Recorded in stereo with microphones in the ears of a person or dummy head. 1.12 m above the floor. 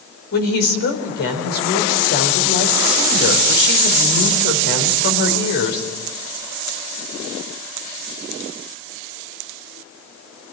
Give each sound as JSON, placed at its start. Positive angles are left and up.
{"t": 0.3, "sound": "a woman speaking", "side_deg": 55, "distance_m": 4.5}